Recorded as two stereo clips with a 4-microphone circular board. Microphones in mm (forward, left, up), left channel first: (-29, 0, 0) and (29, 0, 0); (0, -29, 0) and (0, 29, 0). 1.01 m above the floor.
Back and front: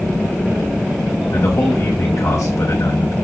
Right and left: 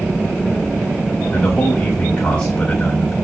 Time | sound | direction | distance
1.3 | a man speaking | 160° right | 10 m